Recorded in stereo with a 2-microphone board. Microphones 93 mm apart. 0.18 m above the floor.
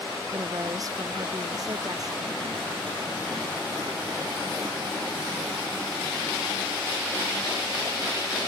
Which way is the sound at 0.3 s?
40° right (ahead or behind).